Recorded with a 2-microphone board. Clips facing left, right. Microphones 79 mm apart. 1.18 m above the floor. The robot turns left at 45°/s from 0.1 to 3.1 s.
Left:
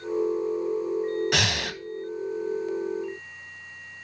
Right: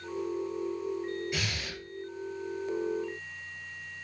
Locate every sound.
1.3 s breathing: 80° left, 0.7 m; by 1.8 s 60° left (ahead or behind), 0.7 m